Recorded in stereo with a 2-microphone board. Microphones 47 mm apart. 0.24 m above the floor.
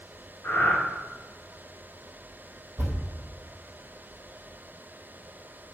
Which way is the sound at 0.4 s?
55° left (ahead or behind).